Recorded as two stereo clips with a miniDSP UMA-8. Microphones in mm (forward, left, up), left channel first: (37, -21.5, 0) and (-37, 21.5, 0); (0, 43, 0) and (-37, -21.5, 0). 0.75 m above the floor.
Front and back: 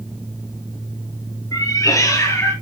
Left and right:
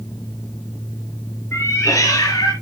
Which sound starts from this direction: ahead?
A cat meowing, at 1.5 s.